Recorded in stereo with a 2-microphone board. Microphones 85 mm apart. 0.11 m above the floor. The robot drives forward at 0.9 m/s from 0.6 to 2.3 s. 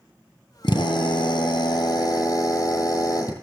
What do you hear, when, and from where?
0.6 s a drill: 60° left (ahead or behind), 1.5 m; by 3.3 s 45° left (ahead or behind), 1.8 m